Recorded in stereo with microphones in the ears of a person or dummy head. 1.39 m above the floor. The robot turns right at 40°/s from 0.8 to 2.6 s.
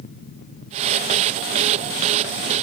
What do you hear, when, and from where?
Only background noise.